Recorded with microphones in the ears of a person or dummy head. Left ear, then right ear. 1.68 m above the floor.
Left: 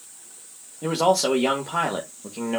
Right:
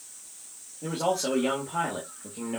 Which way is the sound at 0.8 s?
60° left (ahead or behind).